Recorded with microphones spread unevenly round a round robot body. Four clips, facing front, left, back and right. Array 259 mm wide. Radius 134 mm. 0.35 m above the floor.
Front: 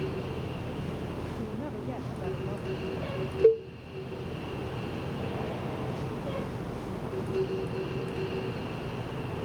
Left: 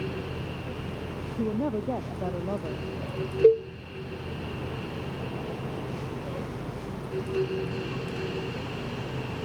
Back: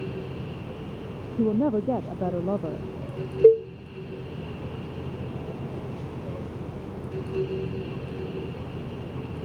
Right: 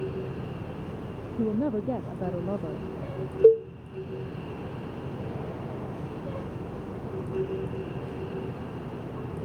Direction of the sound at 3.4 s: 175° right.